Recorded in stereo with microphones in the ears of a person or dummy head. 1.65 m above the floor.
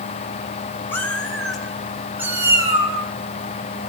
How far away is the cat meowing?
About 4 m.